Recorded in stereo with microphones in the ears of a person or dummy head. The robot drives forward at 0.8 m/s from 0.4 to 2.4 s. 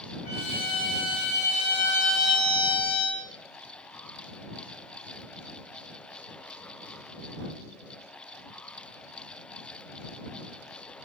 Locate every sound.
0.2 s a violin: 40° left (ahead or behind), 4.5 m; by 3.2 s 30° left (ahead or behind), 5.5 m